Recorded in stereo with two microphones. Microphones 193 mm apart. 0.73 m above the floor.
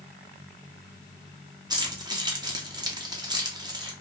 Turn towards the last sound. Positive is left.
turn(degrees=-20)  # may be behind; listen again after turning